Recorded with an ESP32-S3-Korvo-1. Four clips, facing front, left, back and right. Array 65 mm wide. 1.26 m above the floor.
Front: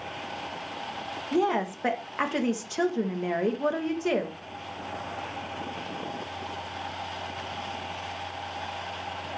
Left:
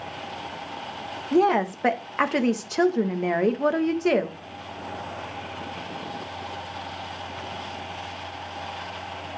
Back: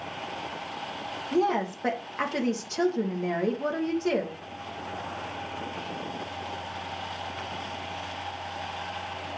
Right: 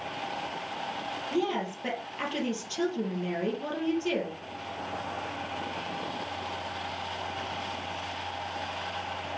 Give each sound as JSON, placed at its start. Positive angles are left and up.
{"t": 1.3, "sound": "a woman speaking", "azimuth_deg": 80, "distance_m": 1.3}